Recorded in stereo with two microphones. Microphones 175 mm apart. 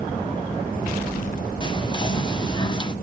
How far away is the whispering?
About 0.5 m.